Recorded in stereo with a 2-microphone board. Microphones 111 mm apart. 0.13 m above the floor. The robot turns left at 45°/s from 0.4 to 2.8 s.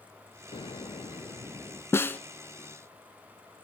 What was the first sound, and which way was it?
An explosion, 80° left.